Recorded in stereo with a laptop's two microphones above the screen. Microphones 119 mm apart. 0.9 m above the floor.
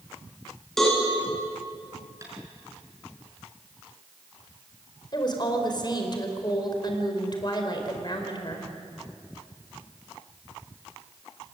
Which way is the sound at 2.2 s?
25° right (ahead or behind).